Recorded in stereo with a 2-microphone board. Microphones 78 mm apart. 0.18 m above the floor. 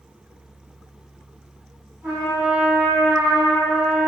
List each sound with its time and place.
2.0 s a trumpet: 25° right (ahead or behind), 1.3 m